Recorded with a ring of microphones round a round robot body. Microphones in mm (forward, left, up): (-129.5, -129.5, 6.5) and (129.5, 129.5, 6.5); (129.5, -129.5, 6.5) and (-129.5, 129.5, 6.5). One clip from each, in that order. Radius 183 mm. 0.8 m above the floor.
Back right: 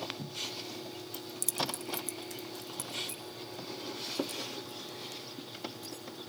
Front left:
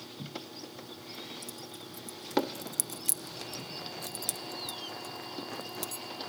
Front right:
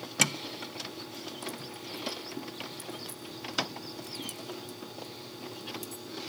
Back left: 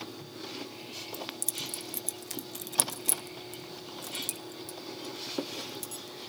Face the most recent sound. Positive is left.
turn(degrees=55)